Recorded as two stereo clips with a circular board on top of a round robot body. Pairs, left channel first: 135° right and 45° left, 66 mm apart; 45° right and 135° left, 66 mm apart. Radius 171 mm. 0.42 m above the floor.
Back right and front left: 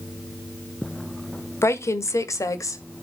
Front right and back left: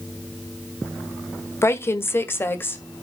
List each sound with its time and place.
1.6 s a woman speaking: 90° right, 1.7 m; by 3.0 s 100° right, 2.5 m